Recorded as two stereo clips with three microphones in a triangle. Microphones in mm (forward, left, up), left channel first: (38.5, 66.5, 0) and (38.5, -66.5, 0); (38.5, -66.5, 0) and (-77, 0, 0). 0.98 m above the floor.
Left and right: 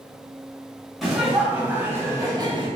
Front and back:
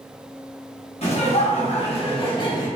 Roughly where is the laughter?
Ahead.